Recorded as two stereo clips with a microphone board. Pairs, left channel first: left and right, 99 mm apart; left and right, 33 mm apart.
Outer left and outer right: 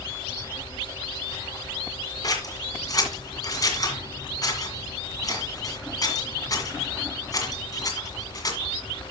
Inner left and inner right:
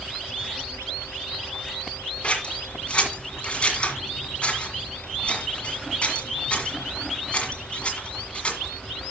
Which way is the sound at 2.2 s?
40° left (ahead or behind).